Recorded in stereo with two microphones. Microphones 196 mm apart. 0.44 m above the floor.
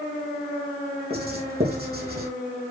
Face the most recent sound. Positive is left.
turn(degrees=-55)  # may be behind; listen again after turning